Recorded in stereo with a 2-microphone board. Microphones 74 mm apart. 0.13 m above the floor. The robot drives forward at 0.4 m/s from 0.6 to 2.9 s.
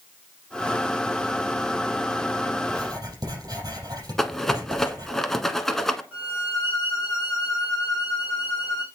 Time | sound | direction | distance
2.6 | writing | 60° right (ahead or behind) | 4.5 m
4.2 | a rattle | 5° left (ahead or behind) | 0.9 m
6.1 | a violin | 30° right (ahead or behind) | 5 m